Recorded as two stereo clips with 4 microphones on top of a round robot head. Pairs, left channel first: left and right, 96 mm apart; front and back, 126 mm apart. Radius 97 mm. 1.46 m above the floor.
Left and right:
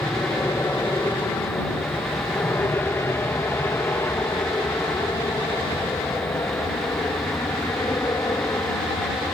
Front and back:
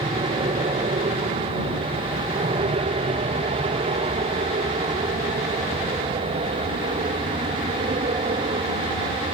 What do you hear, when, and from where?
0.0 s an aircraft: 155° left; by 9.3 s 150° left